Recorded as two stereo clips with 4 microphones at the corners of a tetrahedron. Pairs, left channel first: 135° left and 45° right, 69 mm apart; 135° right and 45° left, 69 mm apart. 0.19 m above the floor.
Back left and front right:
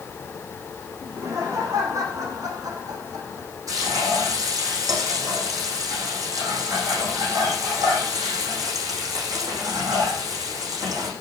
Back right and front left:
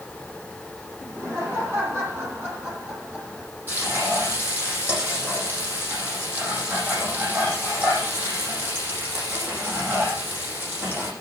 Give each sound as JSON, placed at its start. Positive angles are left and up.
{"t": 1.0, "sound": "laughter", "azimuth_deg": -5, "distance_m": 9.5}
{"t": 3.7, "sound": "frying", "azimuth_deg": -15, "distance_m": 9.0}